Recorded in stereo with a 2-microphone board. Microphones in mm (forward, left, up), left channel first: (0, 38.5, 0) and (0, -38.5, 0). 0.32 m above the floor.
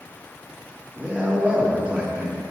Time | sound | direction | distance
1.0 | a man speaking | 20° right (ahead or behind) | 4 m